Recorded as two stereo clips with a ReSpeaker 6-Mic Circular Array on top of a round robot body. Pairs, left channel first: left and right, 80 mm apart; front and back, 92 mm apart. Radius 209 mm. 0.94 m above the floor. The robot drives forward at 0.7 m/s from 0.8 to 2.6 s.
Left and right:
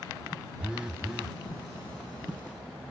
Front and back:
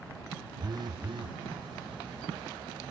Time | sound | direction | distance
0.6 | a phone buzzing | 165° right | ?